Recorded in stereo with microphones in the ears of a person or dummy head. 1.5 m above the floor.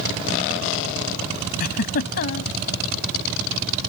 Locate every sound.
1.6 s a giggle: 55° left (ahead or behind)